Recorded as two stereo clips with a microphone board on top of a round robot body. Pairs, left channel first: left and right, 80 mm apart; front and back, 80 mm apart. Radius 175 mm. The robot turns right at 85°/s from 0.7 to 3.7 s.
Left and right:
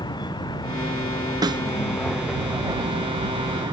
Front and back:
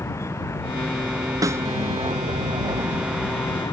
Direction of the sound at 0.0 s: 55° left.